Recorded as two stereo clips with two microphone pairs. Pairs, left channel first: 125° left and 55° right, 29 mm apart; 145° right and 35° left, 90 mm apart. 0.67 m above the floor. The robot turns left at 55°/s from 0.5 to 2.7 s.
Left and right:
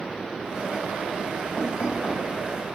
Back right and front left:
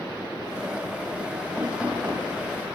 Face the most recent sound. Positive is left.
turn(degrees=70)